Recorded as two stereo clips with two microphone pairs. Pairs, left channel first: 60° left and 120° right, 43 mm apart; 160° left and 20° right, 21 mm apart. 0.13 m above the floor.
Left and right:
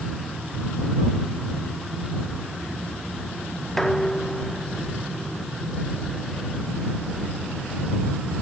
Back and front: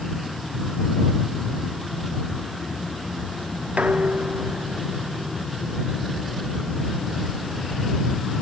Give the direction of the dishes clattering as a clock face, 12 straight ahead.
1 o'clock.